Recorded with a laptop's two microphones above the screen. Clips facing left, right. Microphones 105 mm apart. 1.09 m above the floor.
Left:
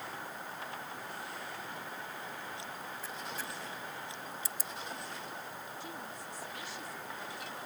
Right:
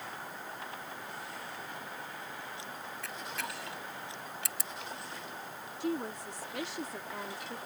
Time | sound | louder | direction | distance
3.0 | a camera shutter | right 3 dB | 70° right (ahead or behind) | ?
5.8 | a woman speaking | right 9 dB | 75° right (ahead or behind) | ?